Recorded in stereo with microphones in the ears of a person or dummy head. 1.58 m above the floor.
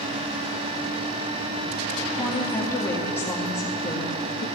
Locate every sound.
2.1 s a woman speaking: 10° left (ahead or behind), 2.5 m; by 4.5 s 35° left (ahead or behind), 1.6 m